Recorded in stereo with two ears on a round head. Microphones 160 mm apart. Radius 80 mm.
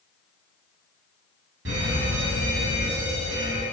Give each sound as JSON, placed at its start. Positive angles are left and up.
{"t": 1.6, "sound": "a fire alarm", "side_deg": -75, "distance_m": 6.5}